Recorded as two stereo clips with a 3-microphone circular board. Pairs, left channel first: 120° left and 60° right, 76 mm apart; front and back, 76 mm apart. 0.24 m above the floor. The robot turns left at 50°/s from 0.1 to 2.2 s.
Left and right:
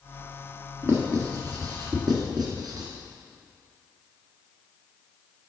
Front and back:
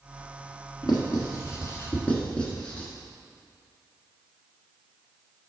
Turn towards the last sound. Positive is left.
turn(degrees=-75)